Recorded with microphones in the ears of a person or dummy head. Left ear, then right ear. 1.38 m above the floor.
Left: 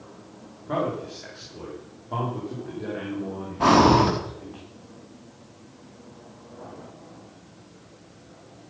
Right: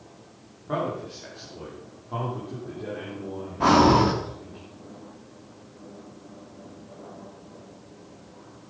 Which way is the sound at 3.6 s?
10° left (ahead or behind).